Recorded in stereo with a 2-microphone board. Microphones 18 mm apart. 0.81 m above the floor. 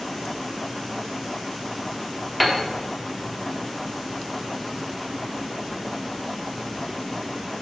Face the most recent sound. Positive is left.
turn(degrees=0)  # may be behind; listen again after turning